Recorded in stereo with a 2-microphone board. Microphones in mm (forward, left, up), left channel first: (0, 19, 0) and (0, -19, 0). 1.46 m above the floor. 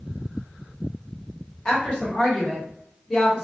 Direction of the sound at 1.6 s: 25° left (ahead or behind).